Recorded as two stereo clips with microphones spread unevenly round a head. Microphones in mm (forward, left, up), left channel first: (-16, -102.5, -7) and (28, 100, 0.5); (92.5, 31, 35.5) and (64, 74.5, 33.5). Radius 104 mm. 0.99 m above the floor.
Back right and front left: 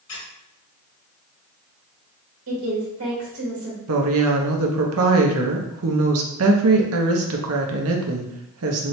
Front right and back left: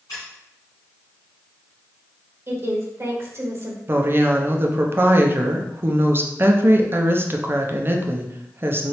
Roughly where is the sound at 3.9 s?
Left.